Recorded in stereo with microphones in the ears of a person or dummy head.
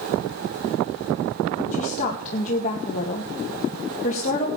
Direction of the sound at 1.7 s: 40° left (ahead or behind).